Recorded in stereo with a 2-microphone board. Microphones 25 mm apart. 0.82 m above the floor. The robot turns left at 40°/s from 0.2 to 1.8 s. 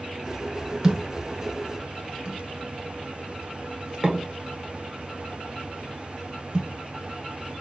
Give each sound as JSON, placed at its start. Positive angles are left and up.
{"t": 0.8, "sound": "a thud", "side_deg": -25, "distance_m": 0.8}